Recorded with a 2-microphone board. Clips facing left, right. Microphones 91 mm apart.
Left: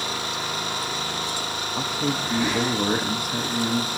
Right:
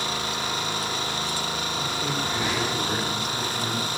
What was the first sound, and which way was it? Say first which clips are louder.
A man speaking: left 5 dB; 65° left (ahead or behind).